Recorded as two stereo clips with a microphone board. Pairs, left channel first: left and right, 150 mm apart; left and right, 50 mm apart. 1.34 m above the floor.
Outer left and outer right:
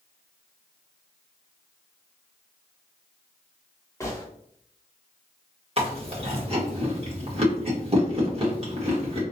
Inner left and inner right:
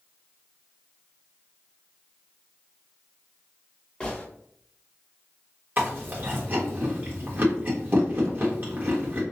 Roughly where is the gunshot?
Centre.